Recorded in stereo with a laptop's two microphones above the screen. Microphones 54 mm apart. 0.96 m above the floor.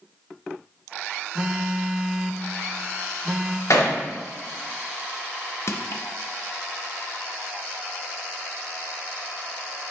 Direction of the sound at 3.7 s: 75° left (ahead or behind).